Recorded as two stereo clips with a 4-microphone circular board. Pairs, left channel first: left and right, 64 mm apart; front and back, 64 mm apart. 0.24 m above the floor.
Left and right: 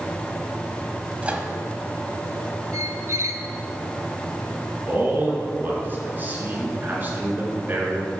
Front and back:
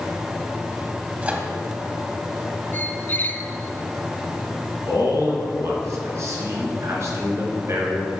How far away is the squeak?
About 0.5 m.